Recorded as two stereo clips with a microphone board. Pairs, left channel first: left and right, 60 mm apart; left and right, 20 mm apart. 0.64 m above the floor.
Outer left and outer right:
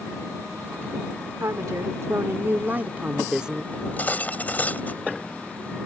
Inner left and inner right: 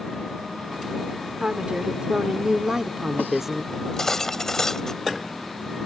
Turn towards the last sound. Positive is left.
turn(degrees=30)  # may be behind; listen again after turning